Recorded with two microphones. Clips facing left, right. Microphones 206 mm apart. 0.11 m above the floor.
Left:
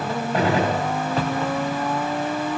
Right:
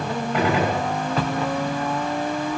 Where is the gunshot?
35° left (ahead or behind), 5 m.